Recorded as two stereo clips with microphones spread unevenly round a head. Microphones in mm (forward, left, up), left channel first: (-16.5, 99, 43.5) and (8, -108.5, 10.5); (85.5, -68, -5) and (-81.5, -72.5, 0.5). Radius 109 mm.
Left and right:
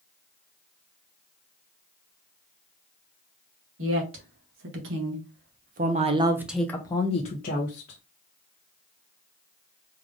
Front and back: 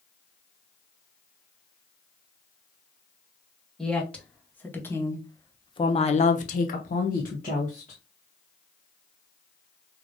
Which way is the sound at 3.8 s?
80° right.